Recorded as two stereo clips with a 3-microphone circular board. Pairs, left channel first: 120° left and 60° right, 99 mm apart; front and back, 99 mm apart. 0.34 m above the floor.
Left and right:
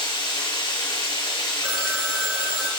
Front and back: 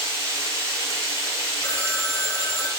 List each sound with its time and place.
0.0 s running water: 130° left, 1.6 m
1.6 s a phone ringing: 10° left, 0.5 m